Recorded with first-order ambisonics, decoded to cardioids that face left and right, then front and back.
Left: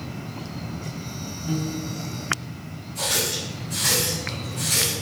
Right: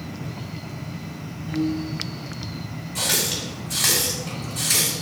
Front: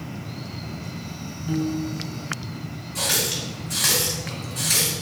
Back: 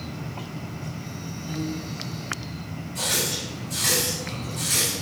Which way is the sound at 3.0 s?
50° right.